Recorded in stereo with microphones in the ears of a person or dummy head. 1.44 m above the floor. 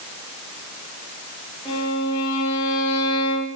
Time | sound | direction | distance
1.6 | a violin | 25° left (ahead or behind) | 3.5 m